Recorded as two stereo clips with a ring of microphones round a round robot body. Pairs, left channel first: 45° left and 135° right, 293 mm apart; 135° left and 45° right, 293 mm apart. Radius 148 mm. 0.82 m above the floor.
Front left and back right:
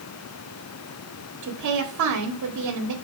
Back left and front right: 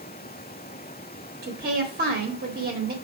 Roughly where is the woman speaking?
Right.